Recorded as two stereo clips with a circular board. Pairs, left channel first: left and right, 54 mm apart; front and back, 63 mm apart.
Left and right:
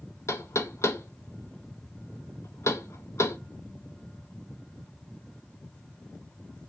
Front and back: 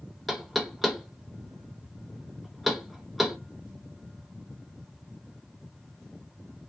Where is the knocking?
95° left, 0.6 m.